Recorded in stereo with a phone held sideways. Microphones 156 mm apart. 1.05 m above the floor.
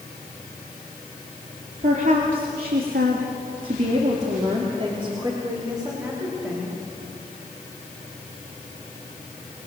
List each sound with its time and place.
1.8 s a woman speaking: 55° right (ahead or behind), 3 m; by 6.7 s 20° right (ahead or behind), 5.5 m